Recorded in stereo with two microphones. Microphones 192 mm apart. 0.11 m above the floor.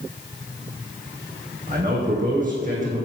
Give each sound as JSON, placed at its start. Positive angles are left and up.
{"t": 1.7, "sound": "a man speaking", "side_deg": -45, "distance_m": 5.0}